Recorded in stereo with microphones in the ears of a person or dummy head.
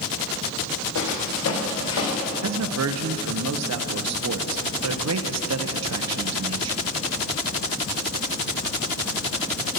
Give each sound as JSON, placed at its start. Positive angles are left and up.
{"t": 0.9, "sound": "footsteps", "side_deg": 70, "distance_m": 3.5}
{"t": 2.4, "sound": "a man speaking", "side_deg": -70, "distance_m": 0.8}